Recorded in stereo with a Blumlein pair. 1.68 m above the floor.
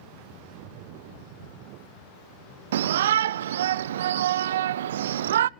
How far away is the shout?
About 0.5 m.